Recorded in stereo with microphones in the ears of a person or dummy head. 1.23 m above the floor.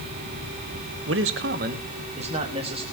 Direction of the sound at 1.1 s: 70° right (ahead or behind).